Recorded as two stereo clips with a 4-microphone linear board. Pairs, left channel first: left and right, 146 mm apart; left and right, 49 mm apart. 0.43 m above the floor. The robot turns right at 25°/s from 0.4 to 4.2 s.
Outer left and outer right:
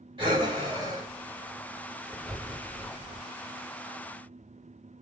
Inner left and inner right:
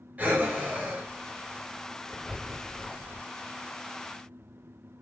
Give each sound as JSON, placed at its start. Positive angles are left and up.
{"t": 0.2, "sound": "breathing", "side_deg": -40, "distance_m": 2.0}